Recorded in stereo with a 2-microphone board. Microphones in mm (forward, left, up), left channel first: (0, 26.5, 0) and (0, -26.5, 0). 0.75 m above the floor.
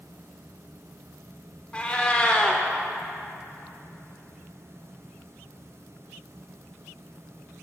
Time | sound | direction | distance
1.7 | a cat meowing | 20° left (ahead or behind) | 0.6 m